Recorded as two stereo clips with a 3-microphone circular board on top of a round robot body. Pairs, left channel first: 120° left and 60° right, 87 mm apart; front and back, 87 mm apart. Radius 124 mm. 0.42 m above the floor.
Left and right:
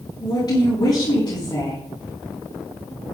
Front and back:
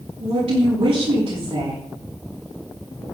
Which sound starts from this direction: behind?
A woman speaking, at 0.2 s.